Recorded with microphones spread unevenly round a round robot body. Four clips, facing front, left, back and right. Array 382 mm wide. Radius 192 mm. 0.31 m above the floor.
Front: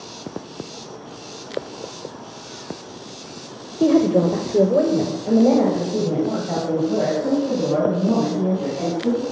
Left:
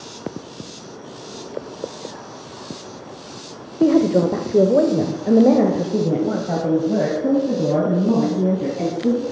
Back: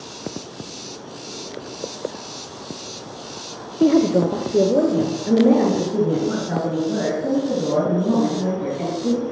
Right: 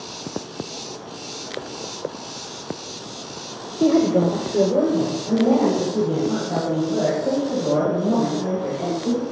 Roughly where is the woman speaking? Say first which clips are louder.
Left 2 dB, even; ahead.